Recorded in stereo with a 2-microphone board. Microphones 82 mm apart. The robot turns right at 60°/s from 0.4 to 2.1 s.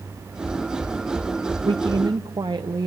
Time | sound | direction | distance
1.6 | a woman speaking | 70° right (ahead or behind) | 0.6 m